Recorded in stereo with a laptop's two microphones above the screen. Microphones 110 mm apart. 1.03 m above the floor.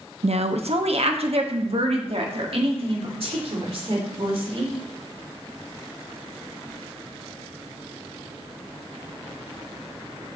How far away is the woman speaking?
About 0.7 m.